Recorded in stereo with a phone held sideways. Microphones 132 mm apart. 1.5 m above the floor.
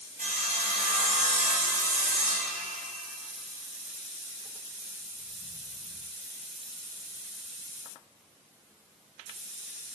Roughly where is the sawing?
Right.